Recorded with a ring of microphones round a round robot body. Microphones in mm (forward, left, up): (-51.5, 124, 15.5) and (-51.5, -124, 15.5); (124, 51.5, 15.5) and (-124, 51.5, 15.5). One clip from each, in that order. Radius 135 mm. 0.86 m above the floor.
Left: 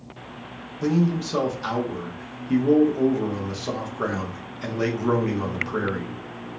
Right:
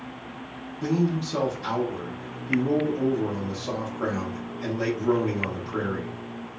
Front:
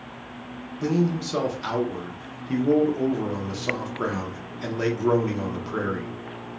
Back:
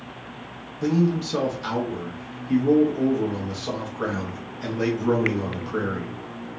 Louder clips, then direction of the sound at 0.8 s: Left 2 dB, back 2 dB; 55° left.